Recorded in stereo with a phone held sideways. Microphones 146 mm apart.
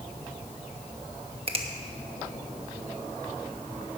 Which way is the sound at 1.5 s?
40° right (ahead or behind).